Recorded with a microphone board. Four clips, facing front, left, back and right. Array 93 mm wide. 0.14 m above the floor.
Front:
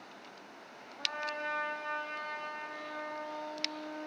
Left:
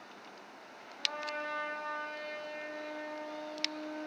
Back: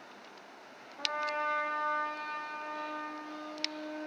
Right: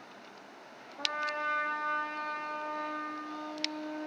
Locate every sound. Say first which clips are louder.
1.0 s a trumpet: right 4 dB, back 4 dB; 125° right, 2.5 m